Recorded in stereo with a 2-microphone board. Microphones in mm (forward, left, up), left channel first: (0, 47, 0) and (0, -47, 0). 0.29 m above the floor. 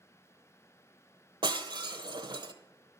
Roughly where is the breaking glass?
Right.